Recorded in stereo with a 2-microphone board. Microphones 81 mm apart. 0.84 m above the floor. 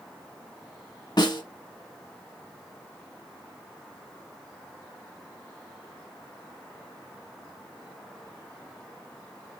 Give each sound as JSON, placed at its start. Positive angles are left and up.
{"t": 1.2, "sound": "a snare drum", "side_deg": 60, "distance_m": 1.2}